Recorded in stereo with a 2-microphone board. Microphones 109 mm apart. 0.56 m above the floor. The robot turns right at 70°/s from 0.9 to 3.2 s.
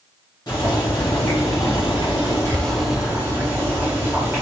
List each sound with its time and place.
0.5 s boiling: 45° left, 1.5 m; by 4.4 s 155° right, 1.5 m